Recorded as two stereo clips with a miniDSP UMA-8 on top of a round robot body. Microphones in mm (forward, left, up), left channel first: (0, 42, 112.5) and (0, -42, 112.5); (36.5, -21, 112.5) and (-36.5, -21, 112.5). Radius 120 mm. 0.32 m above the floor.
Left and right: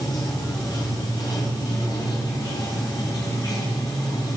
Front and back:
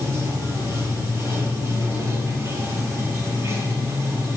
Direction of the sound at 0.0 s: 130° left.